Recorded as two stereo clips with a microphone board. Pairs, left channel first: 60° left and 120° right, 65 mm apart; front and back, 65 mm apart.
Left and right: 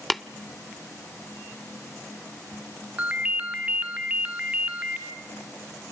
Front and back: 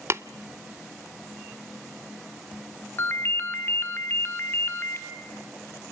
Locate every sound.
0.1 s tapping: 150° left, 0.5 m
3.0 s a ringtone: 50° right, 1.5 m